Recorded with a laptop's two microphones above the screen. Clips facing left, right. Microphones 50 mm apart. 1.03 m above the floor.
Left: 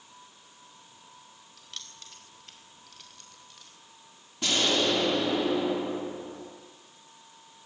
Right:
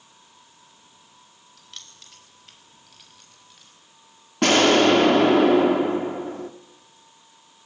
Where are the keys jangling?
Centre (ahead or behind), 4 m; by 3.7 s 5° right (ahead or behind), 6 m.